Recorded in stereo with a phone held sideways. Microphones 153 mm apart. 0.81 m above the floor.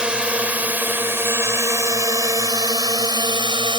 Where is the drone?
5° right (ahead or behind); by 3.8 s 30° right (ahead or behind).